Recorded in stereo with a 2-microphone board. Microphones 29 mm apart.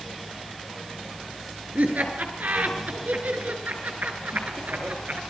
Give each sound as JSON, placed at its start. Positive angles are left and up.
{"t": 1.8, "sound": "laughter", "side_deg": -75, "distance_m": 7.0}